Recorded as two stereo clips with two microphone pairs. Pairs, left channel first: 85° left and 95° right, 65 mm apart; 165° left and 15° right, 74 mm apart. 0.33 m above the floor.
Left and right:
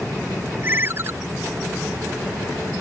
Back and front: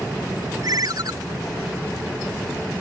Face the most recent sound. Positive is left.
turn(degrees=-45)